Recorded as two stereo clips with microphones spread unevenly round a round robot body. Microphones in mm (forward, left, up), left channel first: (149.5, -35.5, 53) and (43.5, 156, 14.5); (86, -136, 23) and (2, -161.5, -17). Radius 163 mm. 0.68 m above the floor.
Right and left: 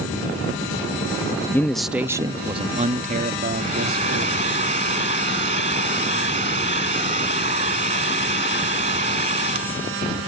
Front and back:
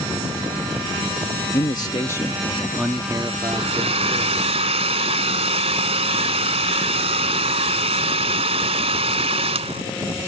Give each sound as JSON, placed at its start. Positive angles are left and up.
{"t": 1.5, "sound": "a man speaking", "azimuth_deg": 30}
{"t": 3.5, "sound": "a hair dryer", "azimuth_deg": -170}